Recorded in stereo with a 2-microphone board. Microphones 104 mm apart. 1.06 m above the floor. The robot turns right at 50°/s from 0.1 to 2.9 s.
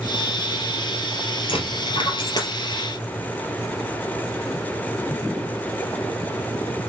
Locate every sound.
1.5 s a dropped coin: 70° left (ahead or behind), 2.5 m; by 2.5 s 40° left (ahead or behind), 2.5 m